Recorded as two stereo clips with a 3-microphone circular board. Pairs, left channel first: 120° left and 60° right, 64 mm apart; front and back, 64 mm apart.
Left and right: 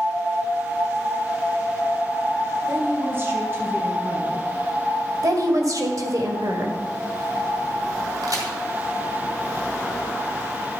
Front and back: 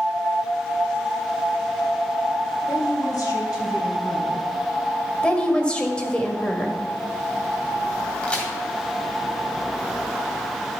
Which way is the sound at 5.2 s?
75° right.